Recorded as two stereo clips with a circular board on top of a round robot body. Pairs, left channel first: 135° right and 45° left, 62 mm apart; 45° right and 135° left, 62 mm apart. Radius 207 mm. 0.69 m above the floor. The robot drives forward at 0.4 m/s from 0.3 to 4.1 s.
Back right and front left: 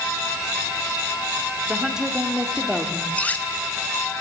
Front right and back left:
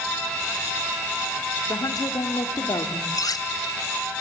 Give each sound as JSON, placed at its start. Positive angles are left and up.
{"t": 1.7, "sound": "a woman speaking", "azimuth_deg": -30, "distance_m": 2.0}
{"t": 3.1, "sound": "cutlery clinking", "azimuth_deg": -65, "distance_m": 1.1}